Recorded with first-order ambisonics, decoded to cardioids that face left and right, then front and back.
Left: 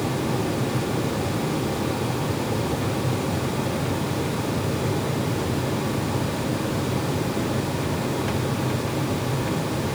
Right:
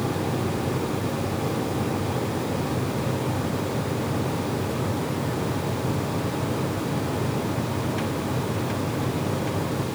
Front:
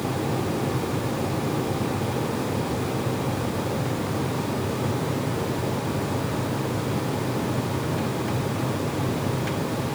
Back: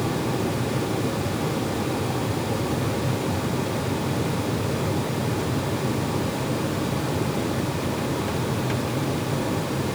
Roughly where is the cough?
No cough in this recording.